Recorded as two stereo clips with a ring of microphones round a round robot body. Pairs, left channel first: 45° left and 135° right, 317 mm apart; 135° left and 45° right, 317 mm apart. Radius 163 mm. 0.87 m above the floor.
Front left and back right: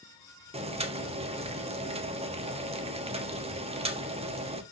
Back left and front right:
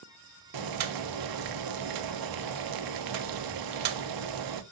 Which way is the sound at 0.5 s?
65° right.